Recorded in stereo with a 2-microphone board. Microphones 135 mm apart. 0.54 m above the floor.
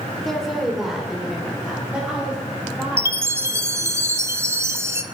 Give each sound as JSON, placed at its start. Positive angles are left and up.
{"t": 0.2, "sound": "a woman speaking", "side_deg": 0, "distance_m": 1.7}
{"t": 3.0, "sound": "a chime", "side_deg": -20, "distance_m": 0.6}